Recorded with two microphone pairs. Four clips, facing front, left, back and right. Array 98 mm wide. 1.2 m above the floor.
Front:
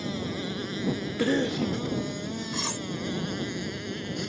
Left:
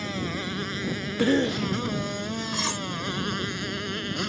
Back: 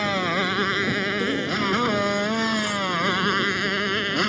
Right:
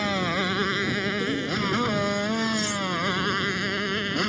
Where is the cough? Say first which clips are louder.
Left 4 dB, back 1 dB; 80° left.